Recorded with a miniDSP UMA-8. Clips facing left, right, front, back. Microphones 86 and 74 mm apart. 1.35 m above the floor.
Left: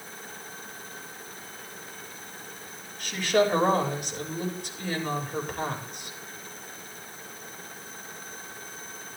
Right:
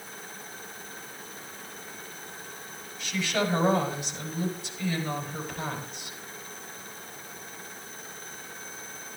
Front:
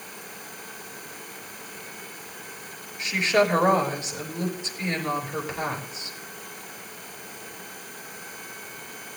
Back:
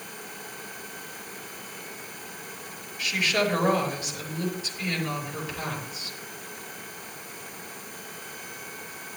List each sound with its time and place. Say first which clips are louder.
3.0 s a woman speaking: left 5 dB, front 4 dB; 60° left, 5.5 m